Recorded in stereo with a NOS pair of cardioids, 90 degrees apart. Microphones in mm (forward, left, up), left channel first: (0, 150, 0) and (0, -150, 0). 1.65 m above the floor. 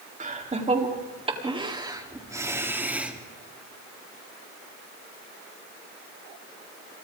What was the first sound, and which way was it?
Laughter, 25° right.